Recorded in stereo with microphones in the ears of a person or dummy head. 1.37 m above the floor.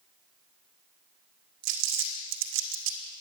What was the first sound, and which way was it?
Crumpling, 65° right (ahead or behind).